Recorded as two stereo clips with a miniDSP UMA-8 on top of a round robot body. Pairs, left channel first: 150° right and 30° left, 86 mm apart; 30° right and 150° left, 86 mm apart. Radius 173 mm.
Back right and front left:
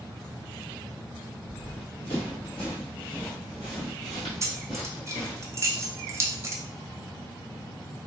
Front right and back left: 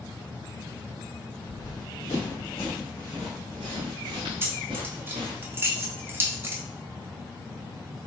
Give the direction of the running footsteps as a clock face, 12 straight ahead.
2 o'clock.